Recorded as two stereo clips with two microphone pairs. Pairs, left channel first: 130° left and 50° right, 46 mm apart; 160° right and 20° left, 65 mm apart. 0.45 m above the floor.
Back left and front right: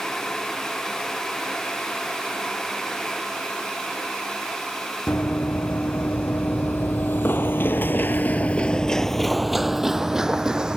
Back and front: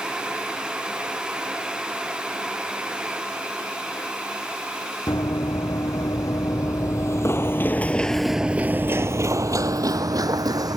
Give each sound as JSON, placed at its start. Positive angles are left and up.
{"t": 5.1, "sound": "running footsteps", "azimuth_deg": 180}